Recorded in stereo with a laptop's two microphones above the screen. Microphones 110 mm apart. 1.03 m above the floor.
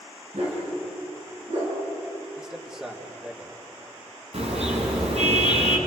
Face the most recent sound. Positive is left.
turn(degrees=-70)  # may be behind; listen again after turning